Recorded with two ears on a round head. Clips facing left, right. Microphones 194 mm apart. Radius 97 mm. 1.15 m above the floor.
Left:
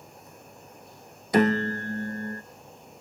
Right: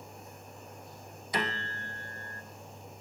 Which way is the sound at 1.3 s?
40° left (ahead or behind).